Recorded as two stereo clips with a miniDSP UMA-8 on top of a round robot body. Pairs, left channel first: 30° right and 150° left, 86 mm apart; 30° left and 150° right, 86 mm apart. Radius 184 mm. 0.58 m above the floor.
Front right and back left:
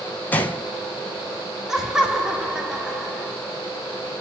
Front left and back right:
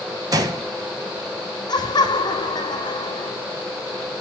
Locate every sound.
0.3 s a gunshot: 100° right, 1.2 m
1.7 s laughter: 65° left, 2.5 m